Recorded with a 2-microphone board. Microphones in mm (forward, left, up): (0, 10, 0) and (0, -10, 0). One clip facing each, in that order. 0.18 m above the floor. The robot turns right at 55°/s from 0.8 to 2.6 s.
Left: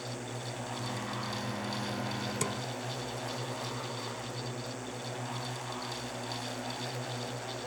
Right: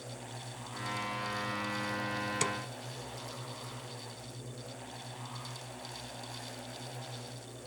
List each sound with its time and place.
0.0 s a drone: 35° left; by 7.7 s 135° left
2.4 s a snare drum: 15° right (ahead or behind); by 2.6 s 10° right (ahead or behind)